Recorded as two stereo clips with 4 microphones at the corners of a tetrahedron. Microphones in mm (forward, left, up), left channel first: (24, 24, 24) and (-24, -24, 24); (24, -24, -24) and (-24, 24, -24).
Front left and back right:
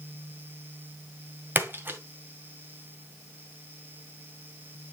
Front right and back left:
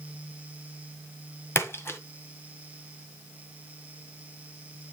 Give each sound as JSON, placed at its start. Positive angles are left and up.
{"t": 1.6, "sound": "a splash", "azimuth_deg": -85, "distance_m": 1.8}